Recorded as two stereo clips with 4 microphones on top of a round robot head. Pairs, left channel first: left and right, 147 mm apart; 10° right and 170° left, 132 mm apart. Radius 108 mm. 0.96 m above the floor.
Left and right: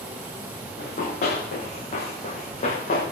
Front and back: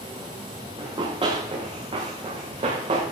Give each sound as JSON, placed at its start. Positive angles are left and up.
{"t": 0.8, "sound": "running footsteps", "azimuth_deg": 115, "distance_m": 6.5}